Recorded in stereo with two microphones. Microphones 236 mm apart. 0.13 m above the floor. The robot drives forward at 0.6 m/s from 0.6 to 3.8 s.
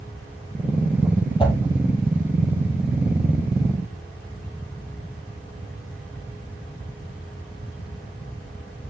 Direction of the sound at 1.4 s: 20° left (ahead or behind).